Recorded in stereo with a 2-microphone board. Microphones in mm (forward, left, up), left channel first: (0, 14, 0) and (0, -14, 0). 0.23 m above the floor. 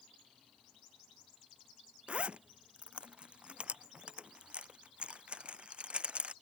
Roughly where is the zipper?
Right.